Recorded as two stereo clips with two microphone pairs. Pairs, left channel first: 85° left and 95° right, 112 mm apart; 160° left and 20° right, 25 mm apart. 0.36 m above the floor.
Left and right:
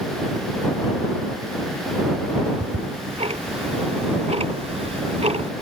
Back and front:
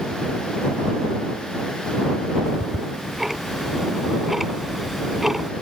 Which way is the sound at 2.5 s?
100° right.